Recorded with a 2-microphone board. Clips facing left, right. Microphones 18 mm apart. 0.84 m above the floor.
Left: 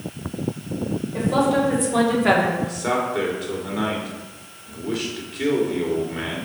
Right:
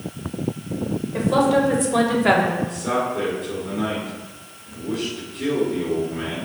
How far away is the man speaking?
About 3 m.